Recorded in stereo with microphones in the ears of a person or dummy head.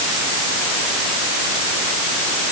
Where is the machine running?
I don't hear a machine running.